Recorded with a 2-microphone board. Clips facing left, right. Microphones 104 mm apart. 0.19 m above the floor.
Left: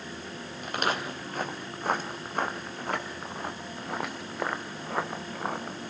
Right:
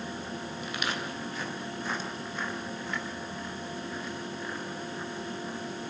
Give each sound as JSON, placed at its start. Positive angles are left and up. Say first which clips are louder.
{"t": 0.6, "sound": "footsteps", "louder": "left 7 dB", "side_deg": 45, "distance_m": 3.5}